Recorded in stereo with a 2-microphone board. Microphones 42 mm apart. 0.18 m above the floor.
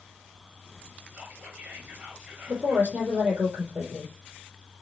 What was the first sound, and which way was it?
Whispering, 50° right (ahead or behind).